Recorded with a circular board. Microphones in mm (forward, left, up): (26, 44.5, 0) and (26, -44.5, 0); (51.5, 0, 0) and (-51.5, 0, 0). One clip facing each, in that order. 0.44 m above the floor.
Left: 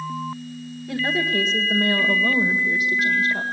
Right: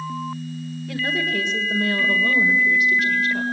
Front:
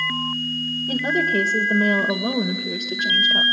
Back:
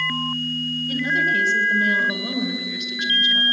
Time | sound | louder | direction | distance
0.9 | a woman speaking | left 2 dB, front 2 dB | 10° left | 2.0 m